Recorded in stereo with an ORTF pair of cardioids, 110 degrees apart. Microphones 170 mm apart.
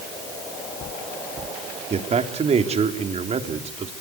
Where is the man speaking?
40° right, 3.5 m.